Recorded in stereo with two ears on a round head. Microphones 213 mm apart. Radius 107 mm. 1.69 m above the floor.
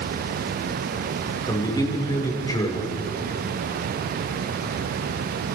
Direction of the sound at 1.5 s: 15° left (ahead or behind).